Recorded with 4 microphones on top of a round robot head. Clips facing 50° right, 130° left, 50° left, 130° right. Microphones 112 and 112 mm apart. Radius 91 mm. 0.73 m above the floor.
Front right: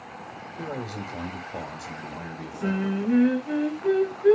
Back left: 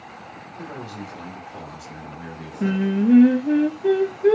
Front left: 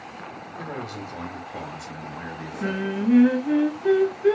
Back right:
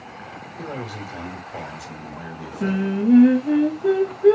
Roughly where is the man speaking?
Ahead right.